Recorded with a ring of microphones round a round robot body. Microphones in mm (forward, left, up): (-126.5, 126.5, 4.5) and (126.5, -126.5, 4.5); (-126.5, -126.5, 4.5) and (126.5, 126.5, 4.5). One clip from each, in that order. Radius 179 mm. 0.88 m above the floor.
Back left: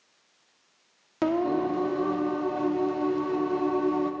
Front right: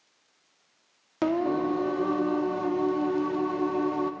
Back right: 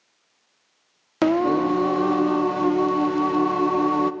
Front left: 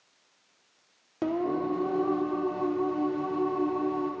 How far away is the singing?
About 0.5 m.